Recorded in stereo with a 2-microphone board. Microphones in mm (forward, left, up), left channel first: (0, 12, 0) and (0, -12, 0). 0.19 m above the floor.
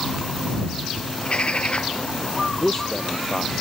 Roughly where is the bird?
Left.